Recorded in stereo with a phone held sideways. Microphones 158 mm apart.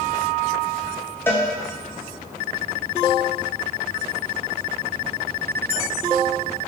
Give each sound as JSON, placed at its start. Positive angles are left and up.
{"t": 1.3, "sound": "a cowbell", "side_deg": 15, "distance_m": 0.6}